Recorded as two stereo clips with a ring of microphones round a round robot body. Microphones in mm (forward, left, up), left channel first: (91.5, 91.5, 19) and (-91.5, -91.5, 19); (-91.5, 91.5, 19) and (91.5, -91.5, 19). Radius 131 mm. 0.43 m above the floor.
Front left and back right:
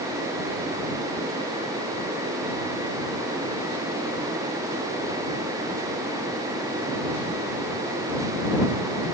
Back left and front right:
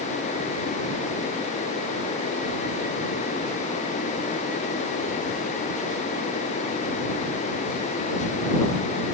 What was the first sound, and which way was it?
Only background noise.